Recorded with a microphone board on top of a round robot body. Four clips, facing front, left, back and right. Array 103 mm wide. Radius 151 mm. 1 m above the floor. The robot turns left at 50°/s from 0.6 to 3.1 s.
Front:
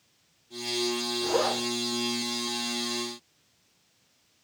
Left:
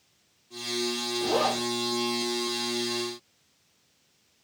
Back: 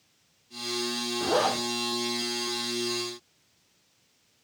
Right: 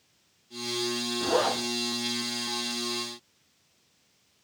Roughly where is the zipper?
Behind right.